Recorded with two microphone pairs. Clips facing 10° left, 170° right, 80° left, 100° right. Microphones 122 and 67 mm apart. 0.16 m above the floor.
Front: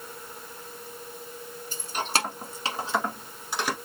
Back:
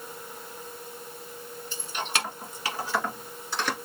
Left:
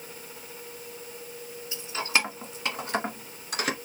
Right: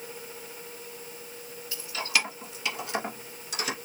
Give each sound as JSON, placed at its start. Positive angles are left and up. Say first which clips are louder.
{"t": 1.7, "sound": "keys jangling", "louder": "front 3 dB, left 2 dB", "azimuth_deg": 20, "distance_m": 1.1}